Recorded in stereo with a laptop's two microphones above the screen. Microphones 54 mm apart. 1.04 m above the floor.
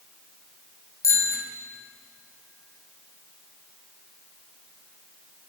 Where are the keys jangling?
I don't hear keys jangling.